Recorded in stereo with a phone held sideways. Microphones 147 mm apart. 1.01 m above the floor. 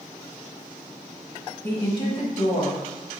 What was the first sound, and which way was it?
A woman speaking, 15° left (ahead or behind).